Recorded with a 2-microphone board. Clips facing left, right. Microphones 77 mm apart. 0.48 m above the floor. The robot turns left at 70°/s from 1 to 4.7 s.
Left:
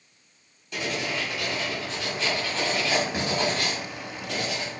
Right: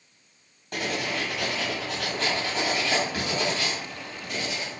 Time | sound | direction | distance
0.7 | writing | 50° right | 1.1 m